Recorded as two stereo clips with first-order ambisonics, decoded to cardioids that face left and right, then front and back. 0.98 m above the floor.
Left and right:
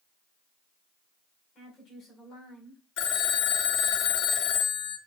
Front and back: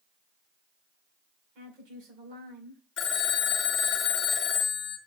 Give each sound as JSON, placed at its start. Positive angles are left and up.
{"t": 1.6, "sound": "a woman speaking", "azimuth_deg": 155, "distance_m": 5.0}
{"t": 3.0, "sound": "a phone ringing", "azimuth_deg": 55, "distance_m": 1.1}